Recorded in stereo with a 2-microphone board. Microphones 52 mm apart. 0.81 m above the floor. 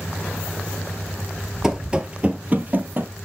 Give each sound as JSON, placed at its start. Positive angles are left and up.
{"t": 1.6, "sound": "running footsteps", "side_deg": -10, "distance_m": 0.8}